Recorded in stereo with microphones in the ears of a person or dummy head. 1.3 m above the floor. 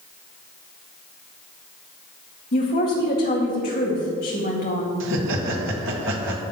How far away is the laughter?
About 1.2 m.